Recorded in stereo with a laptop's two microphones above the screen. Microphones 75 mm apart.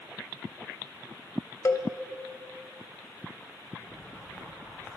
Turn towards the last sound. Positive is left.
turn(degrees=45)  # may be behind; listen again after turning